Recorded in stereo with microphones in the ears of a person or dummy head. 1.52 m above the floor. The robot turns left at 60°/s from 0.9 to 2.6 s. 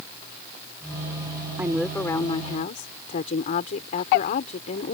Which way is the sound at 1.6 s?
165° right.